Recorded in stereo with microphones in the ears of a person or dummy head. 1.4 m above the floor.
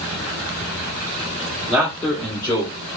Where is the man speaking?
10° right (ahead or behind), 1.1 m; by 2.7 s 25° left (ahead or behind), 1.7 m.